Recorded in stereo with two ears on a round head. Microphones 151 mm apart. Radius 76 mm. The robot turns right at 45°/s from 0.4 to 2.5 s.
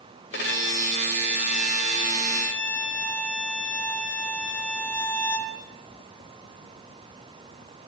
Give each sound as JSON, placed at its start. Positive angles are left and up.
{"t": 0.3, "sound": "a violin", "azimuth_deg": 75, "distance_m": 3.0}